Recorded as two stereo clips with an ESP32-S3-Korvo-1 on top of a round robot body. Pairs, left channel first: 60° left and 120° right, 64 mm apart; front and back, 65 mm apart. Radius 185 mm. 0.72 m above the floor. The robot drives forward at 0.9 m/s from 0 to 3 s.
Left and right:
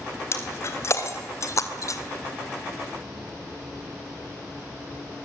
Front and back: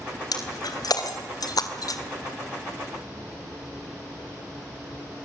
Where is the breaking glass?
15° left, 3 m; by 2.0 s 25° left, 1.7 m.